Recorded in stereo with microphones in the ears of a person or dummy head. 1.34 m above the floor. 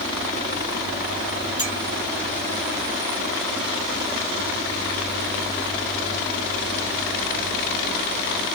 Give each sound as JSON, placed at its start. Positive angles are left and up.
{"t": 1.6, "sound": "a clink", "side_deg": 25, "distance_m": 2.5}